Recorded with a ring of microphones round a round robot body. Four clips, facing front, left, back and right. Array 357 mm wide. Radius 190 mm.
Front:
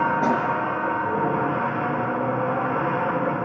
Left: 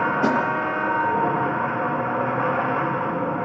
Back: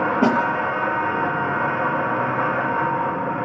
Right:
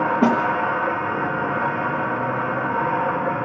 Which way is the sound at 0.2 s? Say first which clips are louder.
Right 4 dB, back 7 dB; 130° right.